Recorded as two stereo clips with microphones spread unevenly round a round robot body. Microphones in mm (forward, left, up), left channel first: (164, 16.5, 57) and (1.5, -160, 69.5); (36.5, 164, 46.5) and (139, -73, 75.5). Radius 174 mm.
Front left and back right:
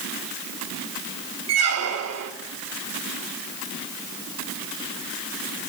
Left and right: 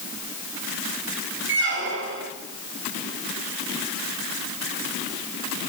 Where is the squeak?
120° right, 0.8 m.